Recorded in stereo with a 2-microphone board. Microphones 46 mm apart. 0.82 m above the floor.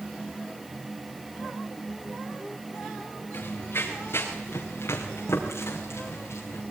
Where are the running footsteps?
55° left (ahead or behind), 3.5 m; by 6.6 s 80° left, 6.5 m.